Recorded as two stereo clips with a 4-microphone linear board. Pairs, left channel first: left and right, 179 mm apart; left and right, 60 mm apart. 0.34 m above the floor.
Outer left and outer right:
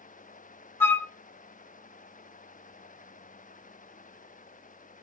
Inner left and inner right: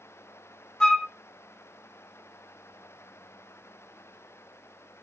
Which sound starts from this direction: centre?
A flute, at 0.8 s.